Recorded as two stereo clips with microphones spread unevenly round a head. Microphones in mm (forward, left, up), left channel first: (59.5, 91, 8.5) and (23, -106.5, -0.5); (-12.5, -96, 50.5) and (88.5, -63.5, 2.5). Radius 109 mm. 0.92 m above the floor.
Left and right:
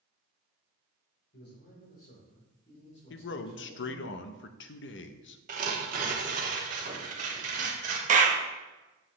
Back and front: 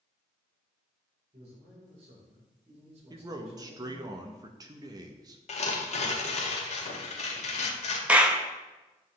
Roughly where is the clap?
Ahead right.